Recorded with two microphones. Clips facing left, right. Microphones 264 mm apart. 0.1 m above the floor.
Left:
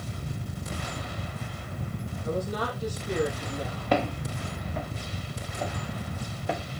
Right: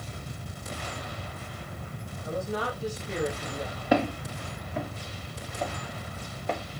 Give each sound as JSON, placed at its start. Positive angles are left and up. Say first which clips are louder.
{"t": 2.2, "sound": "a woman speaking", "louder": "left 1 dB", "side_deg": 45, "distance_m": 3.5}
{"t": 3.9, "sound": "footsteps", "louder": "right 2 dB", "side_deg": -10, "distance_m": 5.0}